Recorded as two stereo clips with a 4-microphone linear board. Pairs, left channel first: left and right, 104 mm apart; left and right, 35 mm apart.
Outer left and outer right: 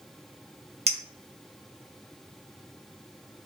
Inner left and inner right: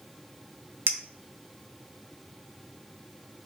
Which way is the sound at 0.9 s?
80° right.